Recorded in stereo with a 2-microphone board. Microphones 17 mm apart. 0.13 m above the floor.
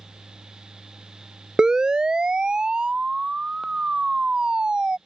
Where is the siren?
45° right (ahead or behind); by 5.0 s 60° right (ahead or behind).